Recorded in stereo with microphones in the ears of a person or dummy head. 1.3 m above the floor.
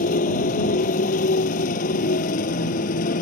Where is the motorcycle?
45° left (ahead or behind).